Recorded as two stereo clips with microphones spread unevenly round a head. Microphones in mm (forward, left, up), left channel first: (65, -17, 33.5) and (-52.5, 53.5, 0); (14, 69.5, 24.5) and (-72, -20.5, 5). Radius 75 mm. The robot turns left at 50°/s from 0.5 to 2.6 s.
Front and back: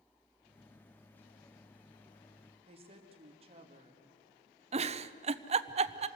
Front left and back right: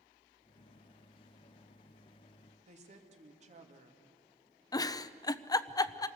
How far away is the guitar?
No guitar in this recording.